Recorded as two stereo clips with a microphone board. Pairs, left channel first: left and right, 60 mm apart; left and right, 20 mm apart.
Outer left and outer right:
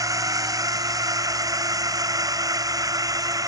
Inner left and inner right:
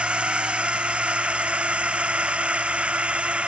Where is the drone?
65° right (ahead or behind); by 3.5 s 80° right.